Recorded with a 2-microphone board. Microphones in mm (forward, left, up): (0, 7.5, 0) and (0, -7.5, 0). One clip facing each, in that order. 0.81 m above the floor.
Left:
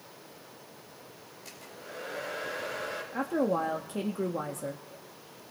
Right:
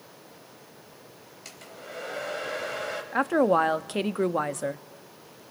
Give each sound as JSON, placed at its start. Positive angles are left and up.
{"t": 1.4, "sound": "a hair dryer", "side_deg": -40, "distance_m": 3.5}
{"t": 3.1, "sound": "a woman speaking", "side_deg": -40, "distance_m": 0.8}